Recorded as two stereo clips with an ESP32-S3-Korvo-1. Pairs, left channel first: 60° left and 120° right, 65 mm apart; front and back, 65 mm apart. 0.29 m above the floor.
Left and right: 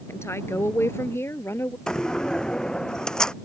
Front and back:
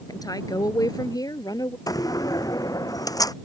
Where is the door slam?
20° right.